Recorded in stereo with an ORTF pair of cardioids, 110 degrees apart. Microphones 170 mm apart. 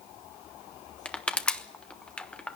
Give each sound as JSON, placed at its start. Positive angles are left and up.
{"t": 1.1, "sound": "crushing", "azimuth_deg": 5, "distance_m": 1.1}